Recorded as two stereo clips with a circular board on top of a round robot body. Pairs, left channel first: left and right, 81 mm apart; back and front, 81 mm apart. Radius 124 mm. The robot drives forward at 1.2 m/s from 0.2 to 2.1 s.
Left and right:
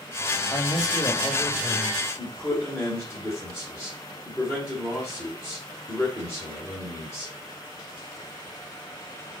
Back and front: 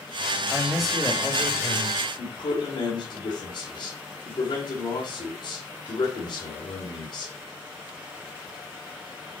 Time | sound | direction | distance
0.5 | a man speaking | 70° left | 1.7 m
2.2 | a man speaking | 175° left | 3 m